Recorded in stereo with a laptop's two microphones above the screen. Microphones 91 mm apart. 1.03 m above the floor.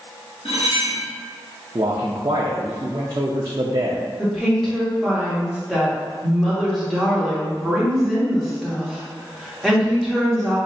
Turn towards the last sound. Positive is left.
turn(degrees=0)  # may be behind; listen again after turning